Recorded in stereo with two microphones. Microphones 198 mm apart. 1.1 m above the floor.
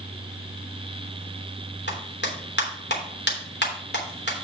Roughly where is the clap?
Left.